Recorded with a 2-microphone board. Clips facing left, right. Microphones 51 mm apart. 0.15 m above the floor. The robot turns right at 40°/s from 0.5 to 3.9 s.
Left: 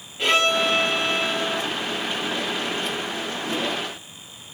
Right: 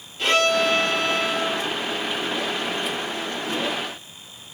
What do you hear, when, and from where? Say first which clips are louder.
0.2 s a violin: right 1 dB; 160° left, 1.4 m; by 1.6 s 160° right, 1.4 m